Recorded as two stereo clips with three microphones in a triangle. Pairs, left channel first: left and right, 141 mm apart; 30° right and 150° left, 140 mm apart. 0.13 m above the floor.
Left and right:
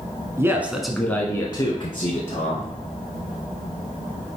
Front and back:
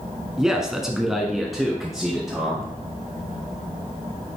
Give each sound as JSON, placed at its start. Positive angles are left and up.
{"t": 0.4, "sound": "a man speaking", "azimuth_deg": -130, "distance_m": 1.1}